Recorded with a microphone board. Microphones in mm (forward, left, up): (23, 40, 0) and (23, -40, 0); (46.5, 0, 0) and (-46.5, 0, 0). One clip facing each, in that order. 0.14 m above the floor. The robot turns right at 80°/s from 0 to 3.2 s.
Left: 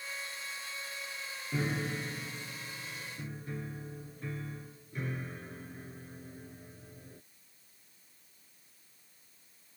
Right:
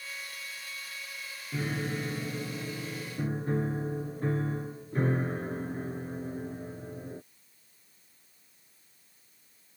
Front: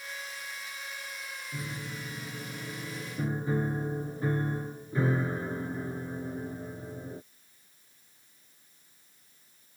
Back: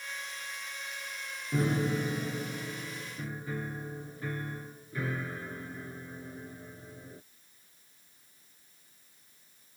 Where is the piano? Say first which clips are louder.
Right 1 dB, back 13 dB; 170° left; by 7.2 s 55° right.